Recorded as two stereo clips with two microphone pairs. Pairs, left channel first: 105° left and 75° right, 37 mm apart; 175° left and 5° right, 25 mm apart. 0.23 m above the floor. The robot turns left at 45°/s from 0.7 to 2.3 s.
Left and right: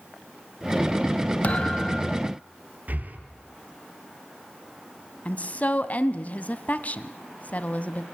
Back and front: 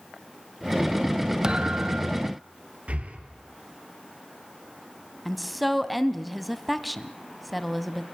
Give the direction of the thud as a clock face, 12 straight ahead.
10 o'clock.